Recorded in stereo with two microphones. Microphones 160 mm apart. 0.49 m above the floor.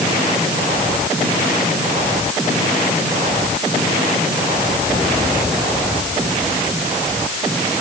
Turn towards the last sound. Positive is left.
No sound to turn to.